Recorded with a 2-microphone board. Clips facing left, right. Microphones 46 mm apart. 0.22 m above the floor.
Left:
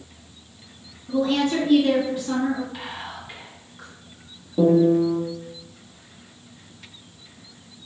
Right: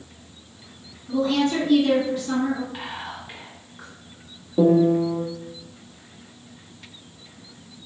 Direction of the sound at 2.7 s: 15° right (ahead or behind).